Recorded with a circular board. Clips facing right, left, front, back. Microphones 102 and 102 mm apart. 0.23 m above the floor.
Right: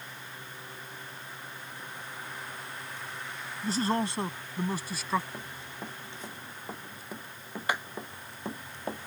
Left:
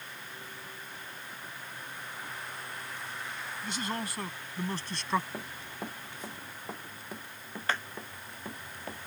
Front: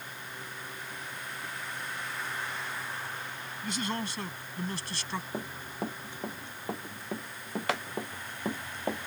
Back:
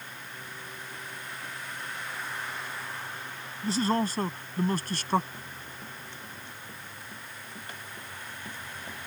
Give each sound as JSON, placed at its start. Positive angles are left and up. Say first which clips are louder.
{"t": 3.6, "sound": "a man speaking", "louder": "right 8 dB, back 8 dB", "azimuth_deg": -130}
{"t": 5.3, "sound": "running footsteps", "louder": "left 1 dB, front 7 dB", "azimuth_deg": 15}